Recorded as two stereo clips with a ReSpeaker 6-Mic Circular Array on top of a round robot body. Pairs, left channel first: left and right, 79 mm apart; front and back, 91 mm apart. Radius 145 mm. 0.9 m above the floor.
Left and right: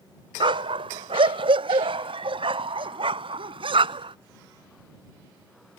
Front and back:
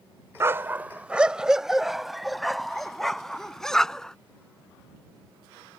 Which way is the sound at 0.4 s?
115° right.